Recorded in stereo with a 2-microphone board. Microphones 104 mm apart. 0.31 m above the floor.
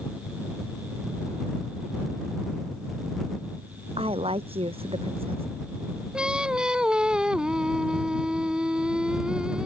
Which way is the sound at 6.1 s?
10° right (ahead or behind).